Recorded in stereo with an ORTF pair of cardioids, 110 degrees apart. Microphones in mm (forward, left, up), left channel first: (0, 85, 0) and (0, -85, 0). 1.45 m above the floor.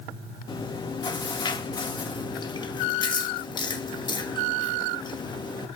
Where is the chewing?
25° left, 1.7 m.